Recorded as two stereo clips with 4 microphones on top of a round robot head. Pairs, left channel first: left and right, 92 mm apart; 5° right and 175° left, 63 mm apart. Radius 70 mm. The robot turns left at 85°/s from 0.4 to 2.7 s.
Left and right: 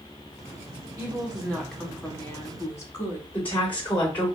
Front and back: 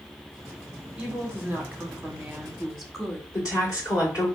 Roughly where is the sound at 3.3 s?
Ahead.